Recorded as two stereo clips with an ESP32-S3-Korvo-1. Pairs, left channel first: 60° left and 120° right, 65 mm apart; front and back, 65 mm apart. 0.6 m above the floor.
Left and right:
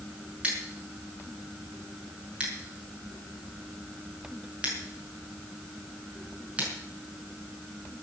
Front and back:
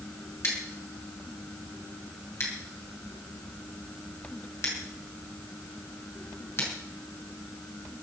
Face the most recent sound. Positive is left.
turn(degrees=-50)